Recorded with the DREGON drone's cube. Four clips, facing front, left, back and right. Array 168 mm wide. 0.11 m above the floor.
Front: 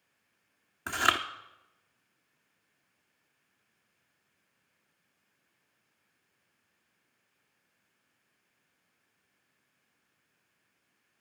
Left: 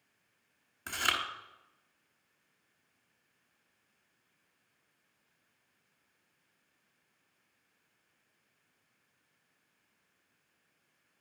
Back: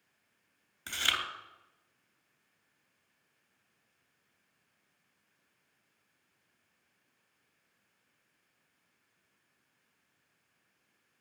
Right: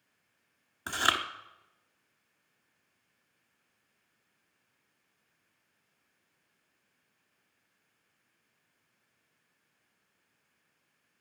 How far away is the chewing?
About 0.8 m.